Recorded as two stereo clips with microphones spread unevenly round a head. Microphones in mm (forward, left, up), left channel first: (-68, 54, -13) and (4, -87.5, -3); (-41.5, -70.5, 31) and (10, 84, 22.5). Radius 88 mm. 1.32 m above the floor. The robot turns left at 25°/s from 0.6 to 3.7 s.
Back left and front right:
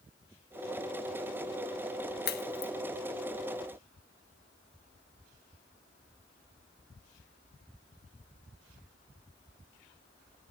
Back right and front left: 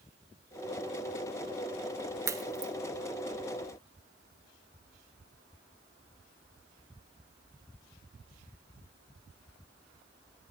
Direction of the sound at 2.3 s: 145° left.